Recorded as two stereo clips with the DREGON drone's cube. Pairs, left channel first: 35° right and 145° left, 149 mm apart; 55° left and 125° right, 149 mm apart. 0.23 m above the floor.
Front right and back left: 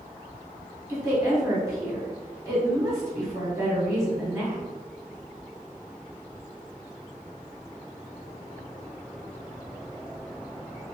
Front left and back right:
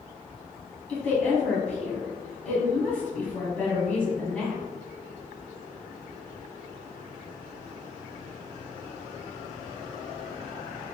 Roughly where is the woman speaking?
Behind left.